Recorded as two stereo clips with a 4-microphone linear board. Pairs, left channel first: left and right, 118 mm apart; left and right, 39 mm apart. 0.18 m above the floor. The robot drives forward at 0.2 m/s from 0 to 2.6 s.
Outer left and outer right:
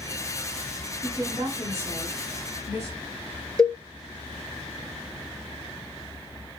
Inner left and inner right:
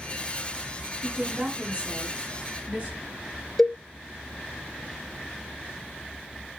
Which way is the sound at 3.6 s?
5° left (ahead or behind).